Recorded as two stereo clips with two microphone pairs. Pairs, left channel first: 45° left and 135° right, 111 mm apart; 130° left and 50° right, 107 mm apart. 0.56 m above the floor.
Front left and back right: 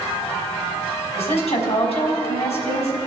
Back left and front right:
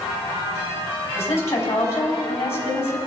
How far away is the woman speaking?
About 3 m.